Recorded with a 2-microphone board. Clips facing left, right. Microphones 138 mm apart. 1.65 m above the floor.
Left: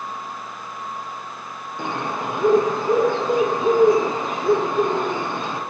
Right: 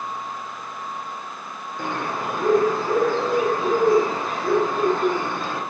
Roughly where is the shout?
No shout in this recording.